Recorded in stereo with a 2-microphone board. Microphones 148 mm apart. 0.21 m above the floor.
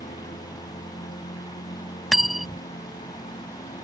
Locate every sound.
0.0 s a lawn mower: 60° left (ahead or behind)
2.1 s cutlery clinking: centre (ahead or behind)